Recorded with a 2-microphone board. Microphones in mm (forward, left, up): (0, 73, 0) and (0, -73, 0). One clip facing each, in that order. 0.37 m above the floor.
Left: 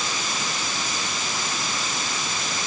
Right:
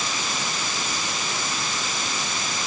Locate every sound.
Only background noise.